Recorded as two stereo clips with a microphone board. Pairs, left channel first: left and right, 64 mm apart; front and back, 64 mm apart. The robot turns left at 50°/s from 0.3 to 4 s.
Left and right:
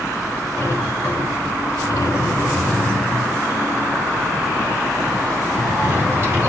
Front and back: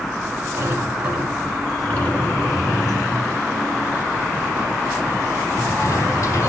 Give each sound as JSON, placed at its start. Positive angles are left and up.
{"t": 0.6, "sound": "a sliding door", "azimuth_deg": 135, "distance_m": 3.5}